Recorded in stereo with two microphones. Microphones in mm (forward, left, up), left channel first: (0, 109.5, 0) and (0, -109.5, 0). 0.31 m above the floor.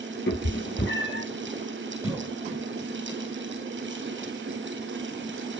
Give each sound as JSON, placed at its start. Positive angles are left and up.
{"t": 0.3, "sound": "a cat meowing", "side_deg": 60, "distance_m": 1.0}
{"t": 2.0, "sound": "a cough", "side_deg": -10, "distance_m": 1.5}